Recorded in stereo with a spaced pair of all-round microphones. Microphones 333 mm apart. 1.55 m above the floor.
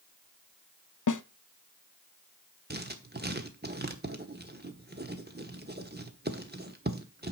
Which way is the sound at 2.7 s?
30° right (ahead or behind).